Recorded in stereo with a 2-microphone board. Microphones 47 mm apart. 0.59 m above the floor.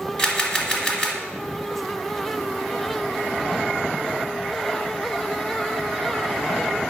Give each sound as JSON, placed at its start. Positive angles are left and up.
{"t": 0.2, "sound": "a camera shutter", "side_deg": 25, "distance_m": 1.8}